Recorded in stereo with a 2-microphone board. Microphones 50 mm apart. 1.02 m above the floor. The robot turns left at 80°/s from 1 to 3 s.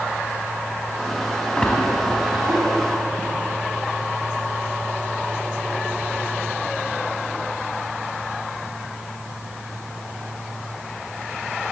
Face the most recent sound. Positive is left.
turn(degrees=-90)